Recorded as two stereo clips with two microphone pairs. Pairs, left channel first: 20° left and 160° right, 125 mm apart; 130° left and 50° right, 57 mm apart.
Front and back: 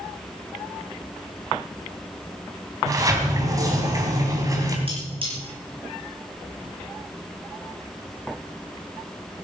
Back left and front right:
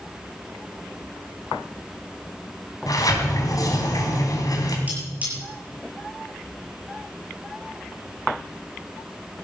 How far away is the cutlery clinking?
About 7 m.